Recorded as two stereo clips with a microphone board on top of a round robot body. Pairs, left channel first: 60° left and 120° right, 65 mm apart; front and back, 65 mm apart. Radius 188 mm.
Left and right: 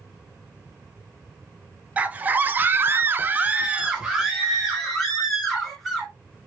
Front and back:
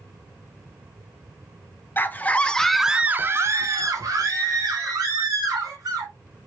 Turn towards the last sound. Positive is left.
turn(degrees=150)